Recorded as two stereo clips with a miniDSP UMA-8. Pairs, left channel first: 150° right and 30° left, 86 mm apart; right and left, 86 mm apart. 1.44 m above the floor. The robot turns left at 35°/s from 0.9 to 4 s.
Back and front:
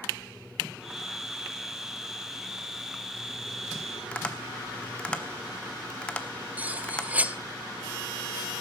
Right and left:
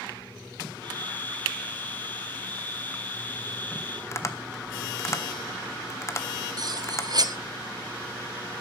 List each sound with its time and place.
4.1 s tapping: 85° right, 1.1 m
6.6 s cutlery clinking: 95° left, 0.9 m